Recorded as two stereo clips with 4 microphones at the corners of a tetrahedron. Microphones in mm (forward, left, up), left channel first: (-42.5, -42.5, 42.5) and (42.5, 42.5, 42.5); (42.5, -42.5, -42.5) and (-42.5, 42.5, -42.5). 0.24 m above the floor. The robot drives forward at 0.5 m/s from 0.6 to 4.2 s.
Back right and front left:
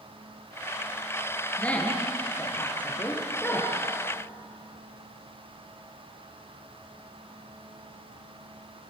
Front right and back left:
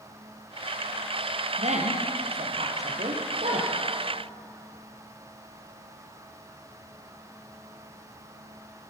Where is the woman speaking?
145° left, 4 m; by 3.7 s 155° left, 4.5 m.